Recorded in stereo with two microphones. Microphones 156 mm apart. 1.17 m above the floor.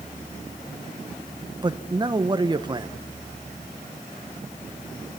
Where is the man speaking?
30° right (ahead or behind), 1.0 m.